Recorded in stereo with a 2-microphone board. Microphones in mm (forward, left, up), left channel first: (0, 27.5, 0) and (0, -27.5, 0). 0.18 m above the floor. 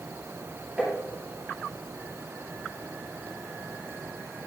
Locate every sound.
0.8 s tapping: 15° right (ahead or behind), 3.5 m